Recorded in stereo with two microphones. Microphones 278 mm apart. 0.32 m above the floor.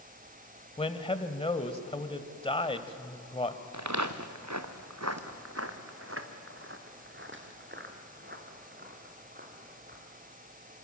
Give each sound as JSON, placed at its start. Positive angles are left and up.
{"t": 0.8, "sound": "a man speaking", "side_deg": 20, "distance_m": 1.4}
{"t": 3.7, "sound": "footsteps", "side_deg": -75, "distance_m": 1.6}